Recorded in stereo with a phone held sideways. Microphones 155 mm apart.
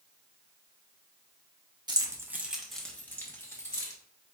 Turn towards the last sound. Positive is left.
turn(degrees=20)  # may be behind; listen again after turning